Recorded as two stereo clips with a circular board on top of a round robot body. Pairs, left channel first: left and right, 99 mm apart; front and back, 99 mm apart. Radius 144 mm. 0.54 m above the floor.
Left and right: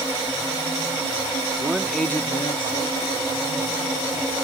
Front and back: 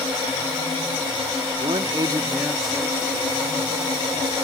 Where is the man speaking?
160° right; by 4.3 s 65° left.